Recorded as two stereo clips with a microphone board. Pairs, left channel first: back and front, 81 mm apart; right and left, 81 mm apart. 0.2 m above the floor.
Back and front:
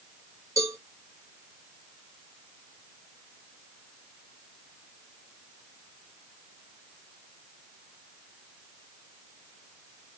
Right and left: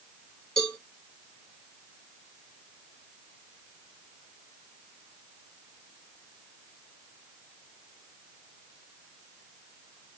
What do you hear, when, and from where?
0.6 s a cowbell: 10° right, 1.4 m